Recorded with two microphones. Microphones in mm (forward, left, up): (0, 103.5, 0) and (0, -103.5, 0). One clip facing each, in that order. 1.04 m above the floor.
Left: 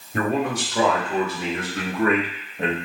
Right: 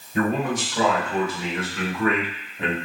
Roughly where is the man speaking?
Left.